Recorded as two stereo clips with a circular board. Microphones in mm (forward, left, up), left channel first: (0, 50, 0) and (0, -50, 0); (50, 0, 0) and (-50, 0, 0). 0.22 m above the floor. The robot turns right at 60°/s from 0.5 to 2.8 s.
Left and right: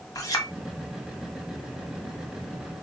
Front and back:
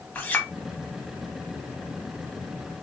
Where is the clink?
65° left, 0.7 m.